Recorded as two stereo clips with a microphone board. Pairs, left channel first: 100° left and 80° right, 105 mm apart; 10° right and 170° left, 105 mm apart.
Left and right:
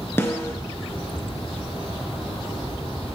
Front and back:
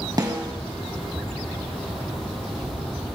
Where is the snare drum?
155° left, 1.5 m.